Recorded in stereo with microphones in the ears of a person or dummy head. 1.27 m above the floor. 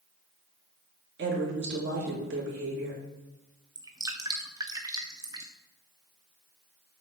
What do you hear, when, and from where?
1.2 s a woman speaking: 65° right (ahead or behind), 2 m
3.8 s dripping: 25° right (ahead or behind), 0.7 m